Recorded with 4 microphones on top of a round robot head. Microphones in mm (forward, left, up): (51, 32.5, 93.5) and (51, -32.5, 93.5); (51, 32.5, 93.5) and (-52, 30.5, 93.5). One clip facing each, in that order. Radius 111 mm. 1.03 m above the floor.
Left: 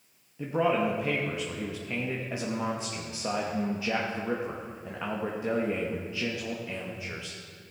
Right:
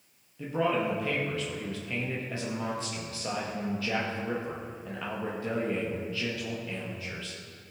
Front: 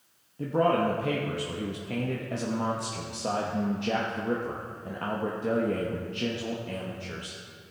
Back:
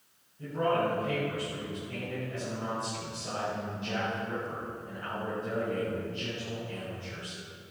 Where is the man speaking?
20° left, 1.1 m.